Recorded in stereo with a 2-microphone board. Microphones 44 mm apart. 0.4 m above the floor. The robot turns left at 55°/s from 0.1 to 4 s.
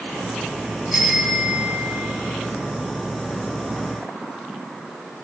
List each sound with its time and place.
0.9 s a bicycle bell: 10° right, 6 m; by 2.1 s 70° right, 6 m